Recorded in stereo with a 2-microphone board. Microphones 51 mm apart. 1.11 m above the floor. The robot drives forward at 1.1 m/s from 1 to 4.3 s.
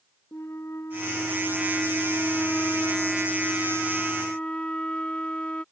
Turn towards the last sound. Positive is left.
turn(degrees=20)  # may be behind; listen again after turning